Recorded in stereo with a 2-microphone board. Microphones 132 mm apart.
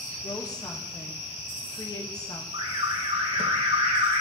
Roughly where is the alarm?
Right.